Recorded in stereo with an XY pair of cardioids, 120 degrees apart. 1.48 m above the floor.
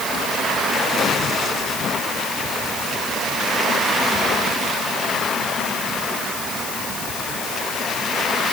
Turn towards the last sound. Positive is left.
No sound to turn to.